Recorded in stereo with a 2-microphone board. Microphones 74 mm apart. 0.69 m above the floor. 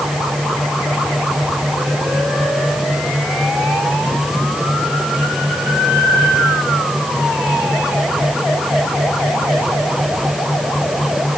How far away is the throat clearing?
I don't hear throat clearing.